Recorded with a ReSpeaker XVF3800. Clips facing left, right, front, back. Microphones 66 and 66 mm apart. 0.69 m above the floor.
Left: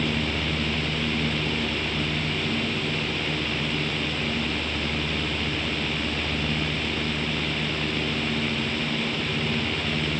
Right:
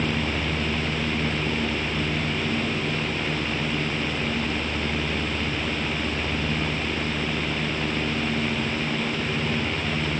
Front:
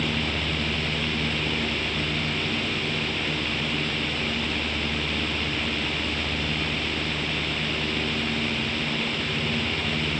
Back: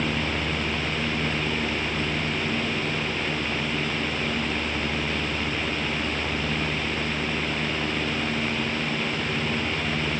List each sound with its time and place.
Only background noise.